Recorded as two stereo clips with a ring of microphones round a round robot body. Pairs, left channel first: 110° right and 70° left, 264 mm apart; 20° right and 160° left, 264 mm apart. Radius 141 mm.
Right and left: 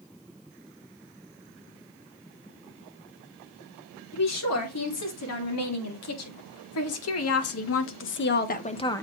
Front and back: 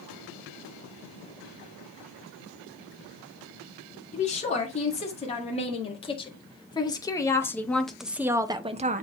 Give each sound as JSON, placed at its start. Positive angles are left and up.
{"t": 4.1, "sound": "a woman speaking", "azimuth_deg": -85, "distance_m": 3.0}